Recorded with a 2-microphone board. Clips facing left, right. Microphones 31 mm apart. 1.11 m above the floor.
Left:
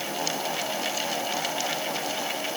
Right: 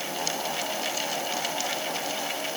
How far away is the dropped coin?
No dropped coin in this recording.